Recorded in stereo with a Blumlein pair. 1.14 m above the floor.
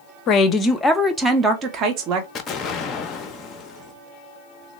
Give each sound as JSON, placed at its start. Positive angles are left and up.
{"t": 0.3, "sound": "a woman speaking", "azimuth_deg": 30, "distance_m": 0.7}
{"t": 2.4, "sound": "an explosion", "azimuth_deg": 25, "distance_m": 0.7}